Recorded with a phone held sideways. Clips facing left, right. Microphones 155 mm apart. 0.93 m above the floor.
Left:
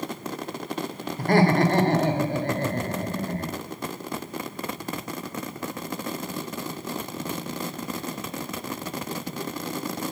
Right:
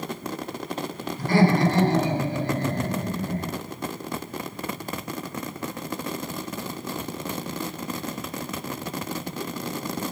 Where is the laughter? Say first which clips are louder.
Even; 65° left (ahead or behind), 3 m.